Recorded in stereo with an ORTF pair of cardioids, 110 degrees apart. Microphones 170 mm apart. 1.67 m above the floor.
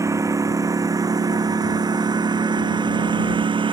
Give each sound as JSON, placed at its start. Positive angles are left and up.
{"t": 0.0, "sound": "a lawn mower", "azimuth_deg": -20}